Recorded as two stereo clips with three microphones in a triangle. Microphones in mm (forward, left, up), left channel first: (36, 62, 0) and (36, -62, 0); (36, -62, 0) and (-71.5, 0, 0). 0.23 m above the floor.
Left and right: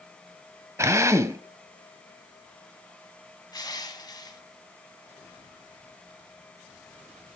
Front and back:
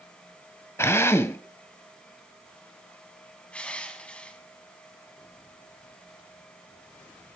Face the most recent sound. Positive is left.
turn(degrees=45)